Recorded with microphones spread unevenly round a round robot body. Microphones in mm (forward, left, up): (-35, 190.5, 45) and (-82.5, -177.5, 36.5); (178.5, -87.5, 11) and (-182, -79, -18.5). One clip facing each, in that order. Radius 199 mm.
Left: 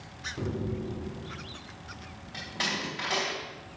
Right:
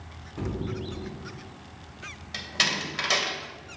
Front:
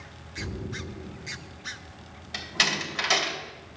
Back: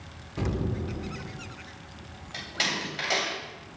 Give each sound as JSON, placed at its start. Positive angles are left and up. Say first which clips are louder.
{"t": 0.4, "sound": "an explosion", "louder": "even, back 6 dB", "azimuth_deg": 180, "distance_m": 0.6}
{"t": 2.3, "sound": "a door slam", "louder": "right 1 dB, front 1 dB", "azimuth_deg": -55, "distance_m": 2.5}